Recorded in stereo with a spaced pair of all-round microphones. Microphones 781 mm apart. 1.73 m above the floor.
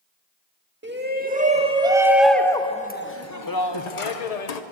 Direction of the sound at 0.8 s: 15° right (ahead or behind).